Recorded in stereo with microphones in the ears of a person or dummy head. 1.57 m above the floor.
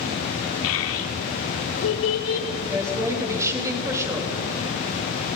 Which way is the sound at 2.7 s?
15° right (ahead or behind).